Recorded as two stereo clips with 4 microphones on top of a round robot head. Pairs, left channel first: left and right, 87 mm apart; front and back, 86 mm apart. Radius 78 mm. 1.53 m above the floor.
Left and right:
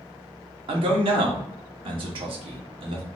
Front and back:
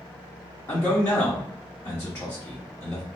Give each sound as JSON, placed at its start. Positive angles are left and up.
{"t": 0.7, "sound": "a man speaking", "azimuth_deg": -70, "distance_m": 0.9}